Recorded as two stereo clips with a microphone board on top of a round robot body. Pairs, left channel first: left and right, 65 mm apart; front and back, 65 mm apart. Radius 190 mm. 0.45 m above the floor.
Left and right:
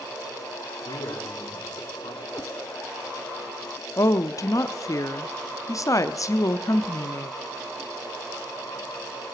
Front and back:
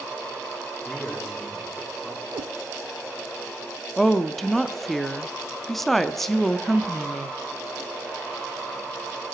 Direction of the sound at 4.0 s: 85° left.